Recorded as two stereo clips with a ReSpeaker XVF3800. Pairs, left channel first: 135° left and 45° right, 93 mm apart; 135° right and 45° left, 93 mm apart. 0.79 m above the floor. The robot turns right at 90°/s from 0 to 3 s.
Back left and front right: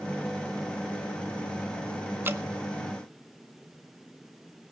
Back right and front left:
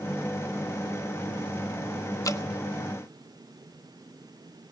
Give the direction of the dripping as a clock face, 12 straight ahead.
3 o'clock.